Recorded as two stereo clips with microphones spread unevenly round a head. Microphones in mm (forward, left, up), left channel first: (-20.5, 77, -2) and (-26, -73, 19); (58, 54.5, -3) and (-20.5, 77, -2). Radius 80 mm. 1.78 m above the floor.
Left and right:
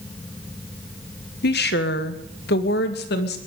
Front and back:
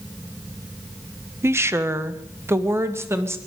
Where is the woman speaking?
105° left, 1.3 m.